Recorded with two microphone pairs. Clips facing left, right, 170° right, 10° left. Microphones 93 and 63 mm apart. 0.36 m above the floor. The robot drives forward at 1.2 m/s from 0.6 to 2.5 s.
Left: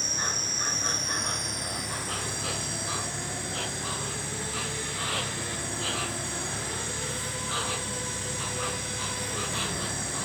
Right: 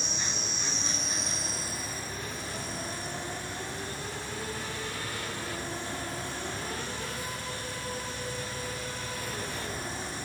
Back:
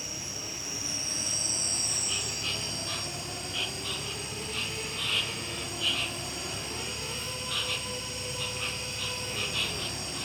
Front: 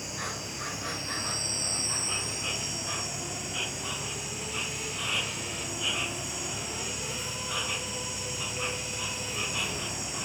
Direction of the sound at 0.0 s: 45° left.